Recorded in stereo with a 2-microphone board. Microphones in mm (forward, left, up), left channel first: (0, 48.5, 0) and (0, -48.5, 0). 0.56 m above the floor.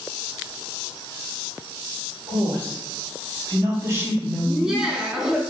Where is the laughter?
5° right (ahead or behind), 0.7 m.